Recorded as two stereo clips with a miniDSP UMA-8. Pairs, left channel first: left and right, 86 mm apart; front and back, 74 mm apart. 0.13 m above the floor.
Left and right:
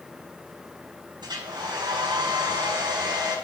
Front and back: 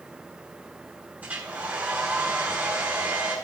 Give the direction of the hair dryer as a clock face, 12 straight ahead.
4 o'clock.